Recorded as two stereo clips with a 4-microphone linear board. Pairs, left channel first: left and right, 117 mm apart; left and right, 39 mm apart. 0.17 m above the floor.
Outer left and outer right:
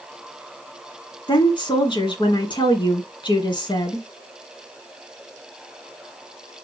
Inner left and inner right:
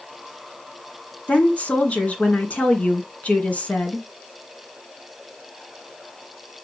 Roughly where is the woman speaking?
Left.